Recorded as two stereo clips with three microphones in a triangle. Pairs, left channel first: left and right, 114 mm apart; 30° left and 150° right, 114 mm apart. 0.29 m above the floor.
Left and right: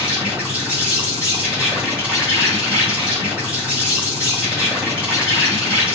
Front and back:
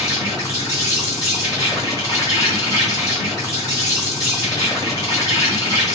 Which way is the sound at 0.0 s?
15° right.